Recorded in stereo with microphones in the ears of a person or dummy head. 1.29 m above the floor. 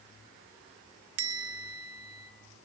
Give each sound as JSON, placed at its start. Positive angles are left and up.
{"t": 1.2, "sound": "a bell", "side_deg": -85, "distance_m": 1.8}